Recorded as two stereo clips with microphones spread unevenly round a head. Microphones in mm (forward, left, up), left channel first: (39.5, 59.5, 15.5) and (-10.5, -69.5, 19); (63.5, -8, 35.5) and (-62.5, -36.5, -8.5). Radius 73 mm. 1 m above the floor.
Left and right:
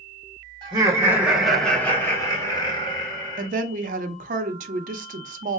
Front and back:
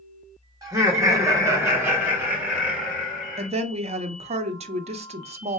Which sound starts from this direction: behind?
Laughter, at 0.6 s.